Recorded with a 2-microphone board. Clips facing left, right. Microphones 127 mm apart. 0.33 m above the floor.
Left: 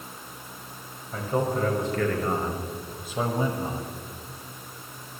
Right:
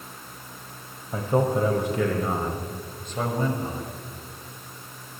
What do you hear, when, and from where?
1.1 s a man speaking: 30° right (ahead or behind), 1.7 m; by 4.0 s 20° left (ahead or behind), 1.7 m